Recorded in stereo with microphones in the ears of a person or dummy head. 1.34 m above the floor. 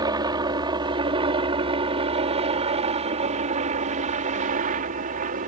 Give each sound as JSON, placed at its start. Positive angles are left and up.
{"t": 0.0, "sound": "a helicopter", "side_deg": -20}